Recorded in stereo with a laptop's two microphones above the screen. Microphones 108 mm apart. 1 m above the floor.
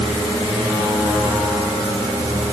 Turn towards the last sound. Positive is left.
No sound to turn to.